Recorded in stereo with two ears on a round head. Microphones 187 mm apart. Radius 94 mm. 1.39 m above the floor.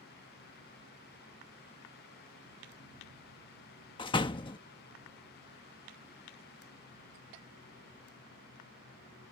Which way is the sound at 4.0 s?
25° left (ahead or behind).